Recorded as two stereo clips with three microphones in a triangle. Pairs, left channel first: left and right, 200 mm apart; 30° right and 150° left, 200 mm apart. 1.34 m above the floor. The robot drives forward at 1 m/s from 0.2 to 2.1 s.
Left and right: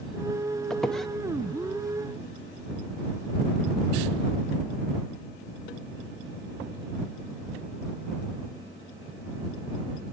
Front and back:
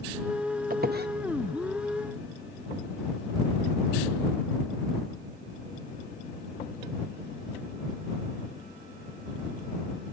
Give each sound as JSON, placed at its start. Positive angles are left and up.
{"t": 0.7, "sound": "a squeak", "azimuth_deg": 175, "distance_m": 0.8}